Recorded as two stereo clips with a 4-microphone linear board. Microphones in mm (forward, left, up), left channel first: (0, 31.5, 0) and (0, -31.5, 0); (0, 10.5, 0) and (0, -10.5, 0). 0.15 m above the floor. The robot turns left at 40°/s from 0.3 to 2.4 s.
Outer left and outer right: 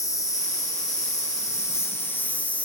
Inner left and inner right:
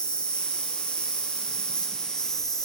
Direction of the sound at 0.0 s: 110° left.